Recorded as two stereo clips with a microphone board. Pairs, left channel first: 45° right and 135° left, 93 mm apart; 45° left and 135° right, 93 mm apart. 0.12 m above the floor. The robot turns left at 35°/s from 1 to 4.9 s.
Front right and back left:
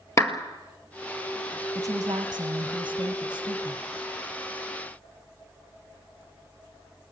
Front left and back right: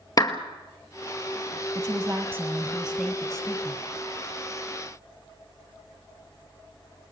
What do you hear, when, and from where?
0.2 s a clap: 5° left, 1.9 m
1.8 s a woman speaking: straight behind, 2.5 m; by 3.8 s 110° left, 2.5 m